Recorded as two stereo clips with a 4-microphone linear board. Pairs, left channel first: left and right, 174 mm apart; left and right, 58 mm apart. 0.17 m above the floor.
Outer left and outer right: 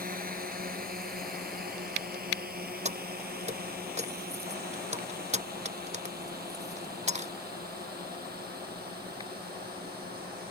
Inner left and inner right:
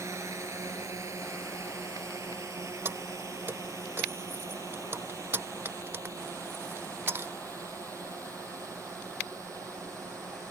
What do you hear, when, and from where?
0.0 s a drone: 55° right (ahead or behind); by 10.5 s 60° right (ahead or behind)
2.9 s keys jangling: 40° right (ahead or behind)